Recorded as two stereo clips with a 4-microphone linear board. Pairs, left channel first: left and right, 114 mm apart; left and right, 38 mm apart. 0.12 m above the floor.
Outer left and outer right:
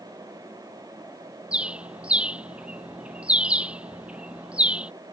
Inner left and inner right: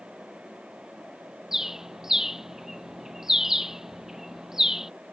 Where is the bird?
10° right (ahead or behind).